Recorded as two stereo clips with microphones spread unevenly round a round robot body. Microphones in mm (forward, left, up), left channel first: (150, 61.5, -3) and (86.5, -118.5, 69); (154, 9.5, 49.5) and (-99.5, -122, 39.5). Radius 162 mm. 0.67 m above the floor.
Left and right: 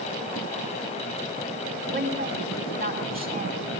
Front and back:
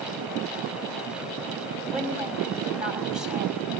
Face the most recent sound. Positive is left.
turn(degrees=-65)